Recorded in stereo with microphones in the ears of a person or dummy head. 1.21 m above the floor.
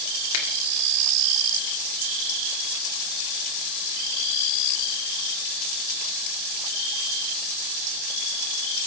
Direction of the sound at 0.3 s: 85° left.